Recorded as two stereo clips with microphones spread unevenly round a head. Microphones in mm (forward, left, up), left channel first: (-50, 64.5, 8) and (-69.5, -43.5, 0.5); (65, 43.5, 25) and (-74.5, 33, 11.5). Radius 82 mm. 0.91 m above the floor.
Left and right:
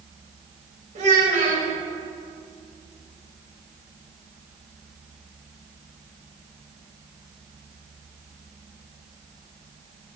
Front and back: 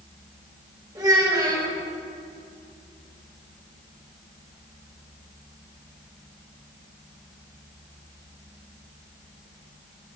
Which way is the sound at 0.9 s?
105° right.